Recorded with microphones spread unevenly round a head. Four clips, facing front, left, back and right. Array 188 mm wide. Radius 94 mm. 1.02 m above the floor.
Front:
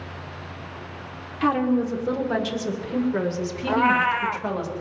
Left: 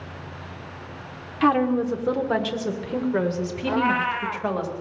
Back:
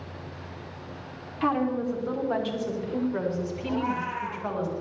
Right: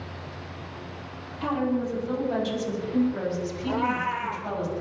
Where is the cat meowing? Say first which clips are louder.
Left 4 dB, front 10 dB; 15° left, 1.3 m.